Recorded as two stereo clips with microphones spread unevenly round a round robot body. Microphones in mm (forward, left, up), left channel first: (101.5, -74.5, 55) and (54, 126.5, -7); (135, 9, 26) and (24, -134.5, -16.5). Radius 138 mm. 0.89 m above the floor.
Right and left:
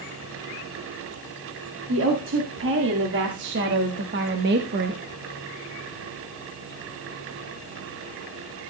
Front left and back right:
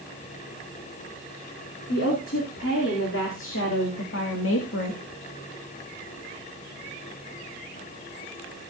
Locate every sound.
1.9 s a woman speaking: 100° left, 3 m; by 5.0 s 95° left, 1.3 m